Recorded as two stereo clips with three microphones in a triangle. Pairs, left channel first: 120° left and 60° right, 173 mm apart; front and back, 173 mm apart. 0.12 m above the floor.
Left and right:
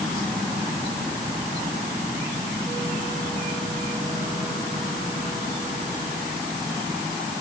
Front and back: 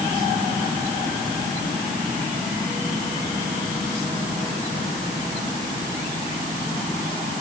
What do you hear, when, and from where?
Only background noise.